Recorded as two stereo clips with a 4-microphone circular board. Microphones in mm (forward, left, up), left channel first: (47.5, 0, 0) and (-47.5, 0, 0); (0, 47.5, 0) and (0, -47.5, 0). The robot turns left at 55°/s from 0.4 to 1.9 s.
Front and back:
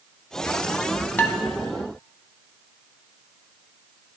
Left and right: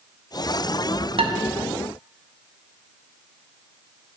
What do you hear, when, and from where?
1.2 s dishes clattering: 70° right, 0.7 m; by 1.4 s 80° right, 0.7 m